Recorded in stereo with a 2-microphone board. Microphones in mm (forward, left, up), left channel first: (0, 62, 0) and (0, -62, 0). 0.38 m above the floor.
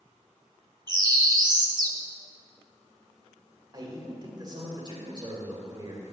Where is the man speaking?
35° right (ahead or behind), 1.7 m.